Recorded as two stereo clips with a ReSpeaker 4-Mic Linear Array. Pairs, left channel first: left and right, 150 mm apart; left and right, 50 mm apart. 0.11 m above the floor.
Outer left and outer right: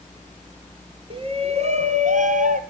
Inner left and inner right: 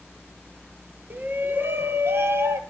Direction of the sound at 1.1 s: 35° right (ahead or behind).